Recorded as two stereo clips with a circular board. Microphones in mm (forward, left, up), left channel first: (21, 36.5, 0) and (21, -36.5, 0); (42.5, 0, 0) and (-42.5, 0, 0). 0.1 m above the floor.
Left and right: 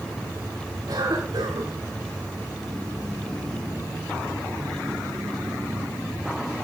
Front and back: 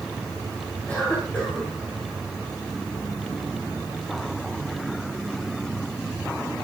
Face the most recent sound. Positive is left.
turn(degrees=-70)